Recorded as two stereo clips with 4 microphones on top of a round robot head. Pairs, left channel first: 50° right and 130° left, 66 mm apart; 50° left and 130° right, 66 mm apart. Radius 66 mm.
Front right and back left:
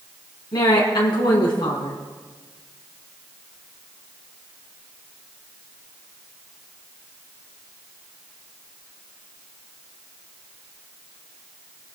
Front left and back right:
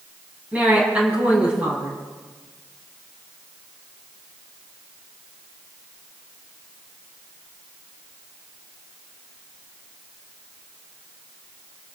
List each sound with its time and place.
0.5 s a woman speaking: 60° right, 4.5 m